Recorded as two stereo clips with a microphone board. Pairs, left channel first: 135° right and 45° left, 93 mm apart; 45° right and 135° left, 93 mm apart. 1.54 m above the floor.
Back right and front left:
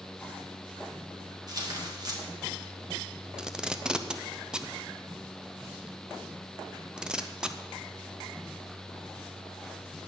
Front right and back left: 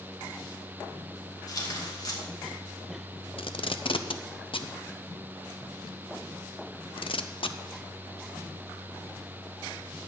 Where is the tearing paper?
Straight ahead, 2.5 m.